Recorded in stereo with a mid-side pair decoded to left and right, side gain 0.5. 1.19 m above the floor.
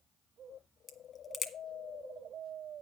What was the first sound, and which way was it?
A crack, 40° left.